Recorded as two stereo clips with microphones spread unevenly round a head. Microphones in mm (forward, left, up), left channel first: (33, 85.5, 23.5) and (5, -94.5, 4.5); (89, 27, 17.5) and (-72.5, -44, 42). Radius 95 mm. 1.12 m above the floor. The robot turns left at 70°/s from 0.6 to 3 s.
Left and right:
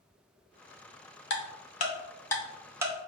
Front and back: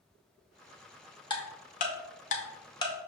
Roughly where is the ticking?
Left.